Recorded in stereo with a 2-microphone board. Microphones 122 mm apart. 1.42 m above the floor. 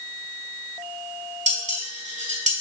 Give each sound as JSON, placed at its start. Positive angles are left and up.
{"t": 1.5, "sound": "dishes clattering", "side_deg": -75, "distance_m": 2.0}